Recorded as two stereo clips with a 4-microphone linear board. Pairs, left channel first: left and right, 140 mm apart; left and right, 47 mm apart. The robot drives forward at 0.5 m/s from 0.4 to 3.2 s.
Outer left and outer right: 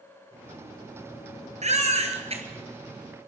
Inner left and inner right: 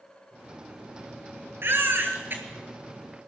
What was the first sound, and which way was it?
A baby crying, 55° right (ahead or behind).